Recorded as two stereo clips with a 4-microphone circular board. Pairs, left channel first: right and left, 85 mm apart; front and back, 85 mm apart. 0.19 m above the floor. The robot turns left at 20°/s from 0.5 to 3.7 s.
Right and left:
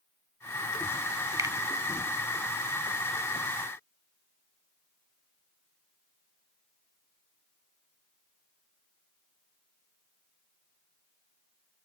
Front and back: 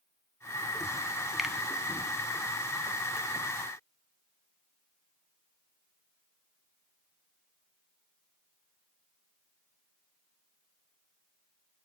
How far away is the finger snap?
About 1.1 m.